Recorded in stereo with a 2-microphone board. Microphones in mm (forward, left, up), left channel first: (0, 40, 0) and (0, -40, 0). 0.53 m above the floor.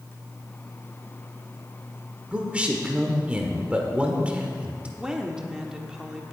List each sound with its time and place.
2.3 s a man speaking: 15° right (ahead or behind), 1.6 m
5.0 s a woman speaking: 10° right (ahead or behind), 1.2 m